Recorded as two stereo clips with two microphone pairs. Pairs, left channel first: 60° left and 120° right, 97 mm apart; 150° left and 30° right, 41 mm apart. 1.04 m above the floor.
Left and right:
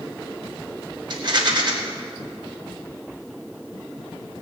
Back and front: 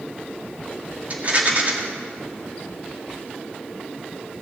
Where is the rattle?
80° right, 2 m.